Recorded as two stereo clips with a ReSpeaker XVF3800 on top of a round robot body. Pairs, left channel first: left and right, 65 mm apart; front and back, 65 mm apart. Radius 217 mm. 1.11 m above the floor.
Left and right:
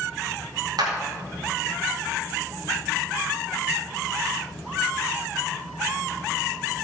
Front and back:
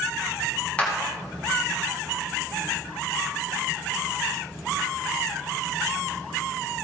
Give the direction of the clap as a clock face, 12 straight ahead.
2 o'clock.